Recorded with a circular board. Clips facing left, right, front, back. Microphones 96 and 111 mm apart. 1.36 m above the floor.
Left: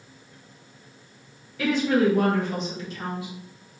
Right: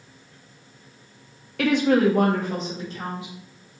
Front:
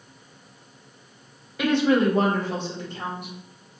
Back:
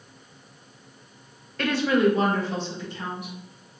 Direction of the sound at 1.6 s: 80° right.